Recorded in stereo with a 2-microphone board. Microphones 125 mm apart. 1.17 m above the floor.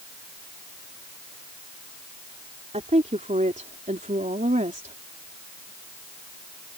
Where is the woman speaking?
65° right (ahead or behind); by 5.0 s 75° right (ahead or behind).